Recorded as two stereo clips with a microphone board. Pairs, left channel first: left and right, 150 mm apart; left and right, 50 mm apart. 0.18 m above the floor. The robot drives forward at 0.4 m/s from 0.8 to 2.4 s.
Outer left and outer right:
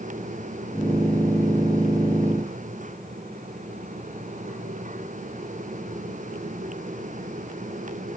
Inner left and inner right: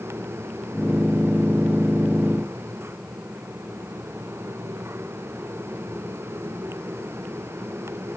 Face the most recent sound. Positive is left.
No sound to turn to.